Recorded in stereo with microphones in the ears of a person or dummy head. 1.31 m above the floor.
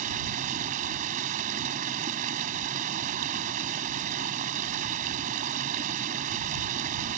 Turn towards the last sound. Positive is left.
turn(degrees=-40)  # may be behind; listen again after turning